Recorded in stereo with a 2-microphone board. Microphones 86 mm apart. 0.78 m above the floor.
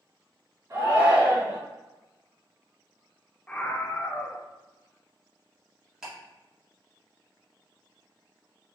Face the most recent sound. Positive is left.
turn(degrees=-10)  # may be behind; listen again after turning